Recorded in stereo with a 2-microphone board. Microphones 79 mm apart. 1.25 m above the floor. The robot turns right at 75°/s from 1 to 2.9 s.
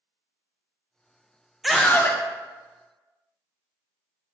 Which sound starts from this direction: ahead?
A scream, at 1.6 s.